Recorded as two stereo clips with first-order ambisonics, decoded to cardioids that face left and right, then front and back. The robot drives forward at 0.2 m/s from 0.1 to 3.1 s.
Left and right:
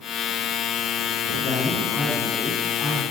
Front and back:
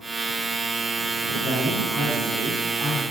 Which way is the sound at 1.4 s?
145° left.